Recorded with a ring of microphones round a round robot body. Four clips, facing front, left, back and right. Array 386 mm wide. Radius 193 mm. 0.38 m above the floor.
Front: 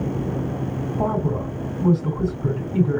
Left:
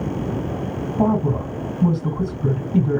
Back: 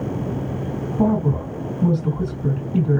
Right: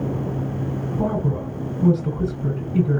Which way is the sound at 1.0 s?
105° left.